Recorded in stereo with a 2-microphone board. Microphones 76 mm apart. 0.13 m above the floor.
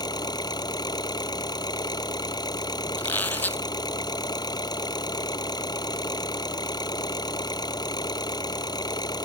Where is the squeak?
25° left (ahead or behind).